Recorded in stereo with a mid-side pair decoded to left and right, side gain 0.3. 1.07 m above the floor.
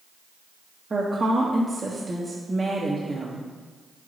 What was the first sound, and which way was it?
A woman speaking, 40° right.